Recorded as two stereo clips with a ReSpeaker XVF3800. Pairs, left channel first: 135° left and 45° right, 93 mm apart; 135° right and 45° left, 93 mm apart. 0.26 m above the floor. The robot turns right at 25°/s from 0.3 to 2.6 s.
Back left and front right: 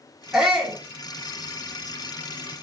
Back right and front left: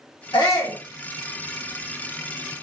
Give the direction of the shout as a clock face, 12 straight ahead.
4 o'clock.